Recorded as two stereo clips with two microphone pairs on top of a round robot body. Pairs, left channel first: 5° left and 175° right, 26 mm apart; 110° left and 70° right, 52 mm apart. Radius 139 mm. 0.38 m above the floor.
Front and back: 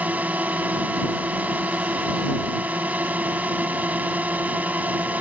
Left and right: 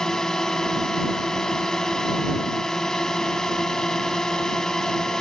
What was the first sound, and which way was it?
A drone, 170° right.